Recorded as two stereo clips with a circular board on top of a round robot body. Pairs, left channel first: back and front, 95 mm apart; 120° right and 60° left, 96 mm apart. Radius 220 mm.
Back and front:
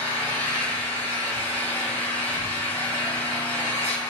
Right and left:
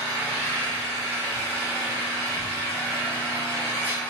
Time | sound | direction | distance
0.0 | an engine running | 170° left | 1.5 m